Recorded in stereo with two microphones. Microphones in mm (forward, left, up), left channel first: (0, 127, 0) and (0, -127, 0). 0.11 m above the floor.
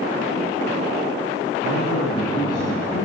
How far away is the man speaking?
About 4.5 m.